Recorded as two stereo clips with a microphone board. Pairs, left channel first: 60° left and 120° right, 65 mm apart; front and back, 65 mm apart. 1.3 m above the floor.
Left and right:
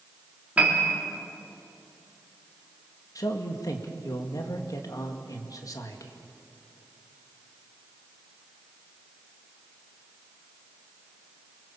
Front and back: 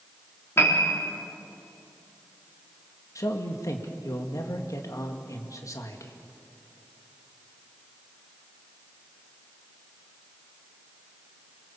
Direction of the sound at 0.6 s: 50° right.